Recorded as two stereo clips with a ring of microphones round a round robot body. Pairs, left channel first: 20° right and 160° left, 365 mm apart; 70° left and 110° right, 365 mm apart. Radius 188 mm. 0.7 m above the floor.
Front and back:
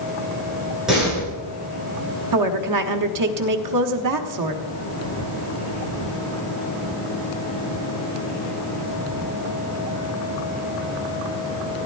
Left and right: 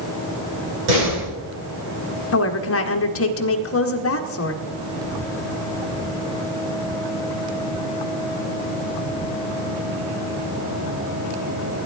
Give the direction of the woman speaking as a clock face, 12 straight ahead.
8 o'clock.